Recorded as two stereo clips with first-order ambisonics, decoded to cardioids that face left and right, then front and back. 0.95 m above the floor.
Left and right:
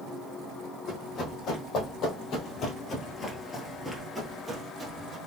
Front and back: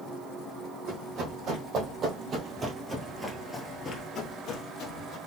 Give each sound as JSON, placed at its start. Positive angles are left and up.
{"t": 0.9, "sound": "running footsteps", "azimuth_deg": 140, "distance_m": 2.0}